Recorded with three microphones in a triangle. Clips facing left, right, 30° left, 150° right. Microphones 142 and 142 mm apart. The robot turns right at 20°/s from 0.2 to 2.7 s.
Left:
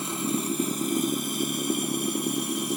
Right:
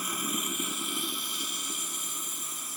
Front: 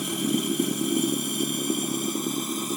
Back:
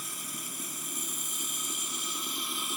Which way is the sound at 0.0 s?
30° left.